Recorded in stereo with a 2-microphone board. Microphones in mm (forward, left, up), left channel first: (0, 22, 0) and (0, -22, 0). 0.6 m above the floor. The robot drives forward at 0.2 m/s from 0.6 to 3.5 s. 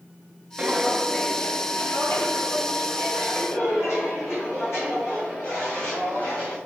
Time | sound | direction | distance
0.6 | footsteps | 15° right (ahead or behind) | 0.6 m